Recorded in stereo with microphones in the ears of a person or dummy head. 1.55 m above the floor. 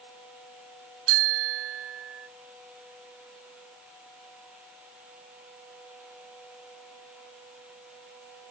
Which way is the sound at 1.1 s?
80° right.